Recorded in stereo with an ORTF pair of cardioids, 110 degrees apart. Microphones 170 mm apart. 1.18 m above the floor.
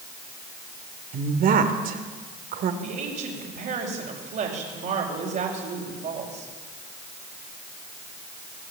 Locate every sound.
1.1 s a woman speaking: 60° right, 3 m
2.8 s a woman speaking: 55° right, 5.5 m